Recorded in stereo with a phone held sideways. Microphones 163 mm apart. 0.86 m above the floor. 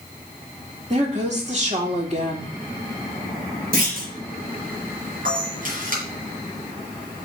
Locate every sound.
0.9 s a woman speaking: 45° right (ahead or behind), 1.9 m
3.7 s a clunk: 65° right (ahead or behind), 3.5 m
5.2 s a camera shutter: 55° right (ahead or behind), 3.5 m